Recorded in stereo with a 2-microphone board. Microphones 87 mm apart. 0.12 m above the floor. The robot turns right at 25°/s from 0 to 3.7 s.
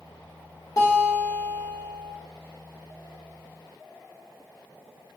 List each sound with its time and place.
0.8 s a guitar: 110° left, 1.1 m; by 2.1 s 145° left, 1.1 m